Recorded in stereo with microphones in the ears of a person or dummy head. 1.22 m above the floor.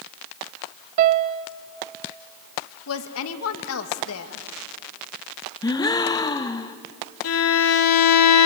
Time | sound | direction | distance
1.0 | a piano | 45° right (ahead or behind) | 0.7 m
2.9 | a woman speaking | 80° left | 1.6 m
5.6 | a gasp | 20° left (ahead or behind) | 0.8 m
7.2 | a violin | 85° left | 2 m